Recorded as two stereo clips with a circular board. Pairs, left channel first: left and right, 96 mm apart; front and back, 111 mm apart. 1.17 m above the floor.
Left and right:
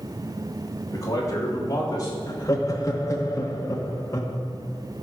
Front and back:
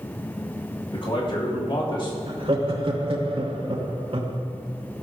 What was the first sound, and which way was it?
A man speaking, 40° left.